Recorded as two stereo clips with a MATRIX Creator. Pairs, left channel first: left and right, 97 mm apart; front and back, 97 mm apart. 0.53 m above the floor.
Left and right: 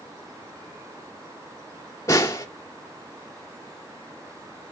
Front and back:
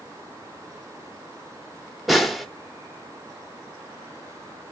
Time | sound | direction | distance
2.1 | a snare drum | 95° left | 1.1 m